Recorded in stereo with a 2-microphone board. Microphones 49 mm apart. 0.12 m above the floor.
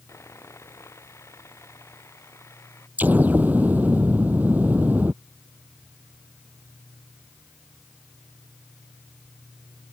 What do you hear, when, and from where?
0.1 s sawing: 80° left
3.0 s an explosion: 40° right (ahead or behind)